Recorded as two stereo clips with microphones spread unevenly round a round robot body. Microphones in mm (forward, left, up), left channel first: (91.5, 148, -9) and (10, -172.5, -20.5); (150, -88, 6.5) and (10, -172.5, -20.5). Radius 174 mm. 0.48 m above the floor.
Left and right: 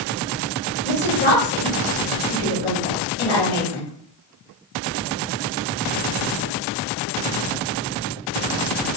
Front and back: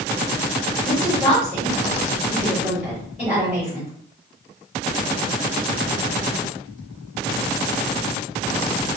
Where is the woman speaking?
130° left, 1.6 m.